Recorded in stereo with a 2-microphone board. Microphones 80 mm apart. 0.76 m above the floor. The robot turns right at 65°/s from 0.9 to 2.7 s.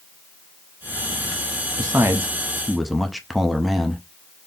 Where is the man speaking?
60° right, 0.7 m; by 4.0 s straight ahead, 0.7 m.